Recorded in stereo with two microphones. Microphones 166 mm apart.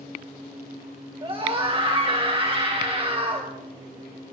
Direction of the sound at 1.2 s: 35° right (ahead or behind).